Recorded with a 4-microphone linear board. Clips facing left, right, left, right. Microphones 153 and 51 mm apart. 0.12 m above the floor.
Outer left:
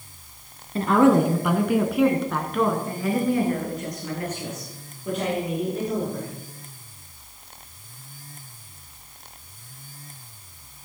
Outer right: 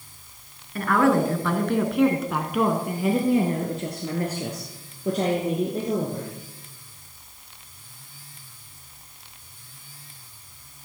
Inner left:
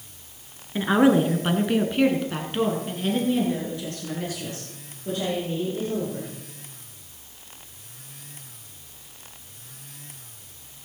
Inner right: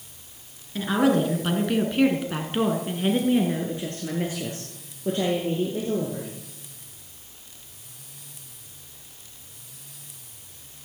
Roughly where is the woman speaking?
Left.